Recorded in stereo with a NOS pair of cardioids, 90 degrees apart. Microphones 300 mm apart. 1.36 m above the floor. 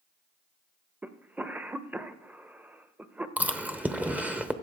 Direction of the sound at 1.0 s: 5° right.